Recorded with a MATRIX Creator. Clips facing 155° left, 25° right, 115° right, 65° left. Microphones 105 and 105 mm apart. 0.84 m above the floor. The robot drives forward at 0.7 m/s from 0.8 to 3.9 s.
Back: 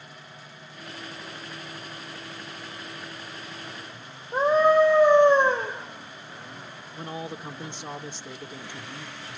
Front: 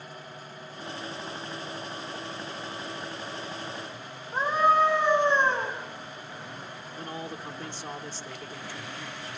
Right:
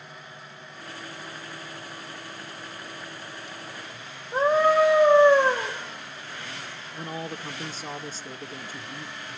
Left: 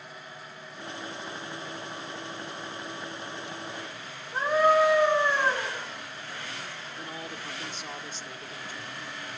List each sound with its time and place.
4.3 s a scream: 155° right, 4 m
6.9 s a man speaking: 140° right, 0.8 m